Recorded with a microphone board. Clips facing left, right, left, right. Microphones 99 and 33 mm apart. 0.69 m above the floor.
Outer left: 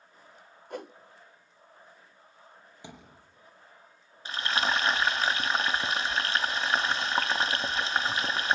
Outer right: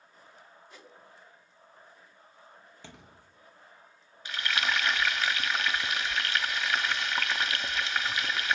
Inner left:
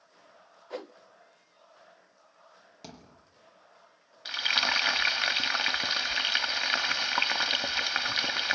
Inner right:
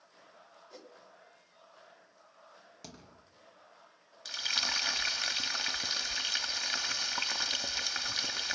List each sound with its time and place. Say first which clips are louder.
0.7 s a whoosh: outer left 17 dB, inner left 14 dB; 60° left (ahead or behind), 0.7 m
2.8 s a thud: outer left 5 dB, inner left 4 dB; 15° left (ahead or behind), 5.5 m
4.2 s frying: outer left 2 dB, inner left 7 dB; 35° left (ahead or behind), 0.9 m